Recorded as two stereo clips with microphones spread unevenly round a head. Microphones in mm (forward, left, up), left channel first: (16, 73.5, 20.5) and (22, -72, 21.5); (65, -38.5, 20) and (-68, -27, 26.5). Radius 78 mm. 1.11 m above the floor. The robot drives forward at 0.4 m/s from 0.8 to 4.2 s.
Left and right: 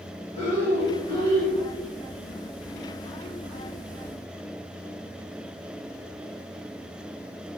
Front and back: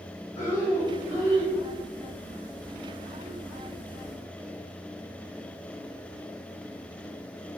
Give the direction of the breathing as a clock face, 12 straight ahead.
11 o'clock.